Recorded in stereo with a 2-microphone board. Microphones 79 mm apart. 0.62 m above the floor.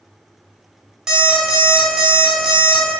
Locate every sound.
1.1 s an alarm clock: 10° right (ahead or behind), 0.6 m